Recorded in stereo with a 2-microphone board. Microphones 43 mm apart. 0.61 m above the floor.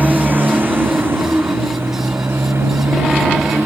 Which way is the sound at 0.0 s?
45° right (ahead or behind).